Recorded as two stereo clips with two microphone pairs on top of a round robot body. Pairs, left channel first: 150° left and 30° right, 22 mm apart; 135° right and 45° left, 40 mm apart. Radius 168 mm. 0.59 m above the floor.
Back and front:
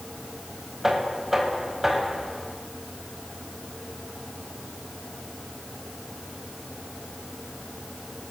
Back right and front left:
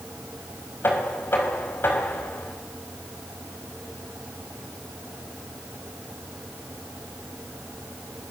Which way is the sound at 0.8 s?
105° right.